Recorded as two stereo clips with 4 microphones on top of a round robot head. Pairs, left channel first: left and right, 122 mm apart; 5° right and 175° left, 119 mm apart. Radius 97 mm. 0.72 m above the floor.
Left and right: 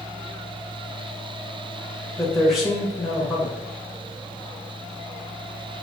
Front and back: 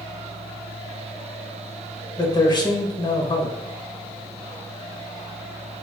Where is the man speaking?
5° right, 0.9 m.